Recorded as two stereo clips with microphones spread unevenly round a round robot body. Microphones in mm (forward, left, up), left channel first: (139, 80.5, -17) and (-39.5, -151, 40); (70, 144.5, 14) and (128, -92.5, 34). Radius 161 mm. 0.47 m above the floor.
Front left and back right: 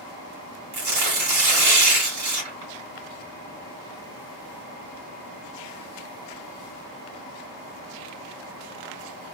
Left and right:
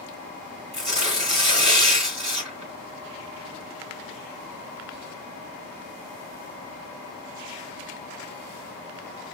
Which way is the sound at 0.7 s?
150° right.